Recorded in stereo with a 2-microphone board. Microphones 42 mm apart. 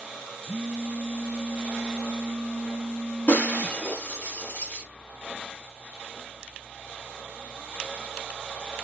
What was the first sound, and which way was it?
A phone buzzing, 35° right (ahead or behind).